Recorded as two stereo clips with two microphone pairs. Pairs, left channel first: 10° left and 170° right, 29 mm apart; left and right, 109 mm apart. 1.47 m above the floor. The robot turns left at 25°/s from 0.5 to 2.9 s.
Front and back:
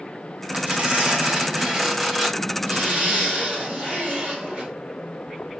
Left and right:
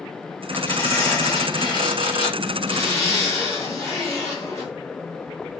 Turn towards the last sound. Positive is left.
turn(degrees=155)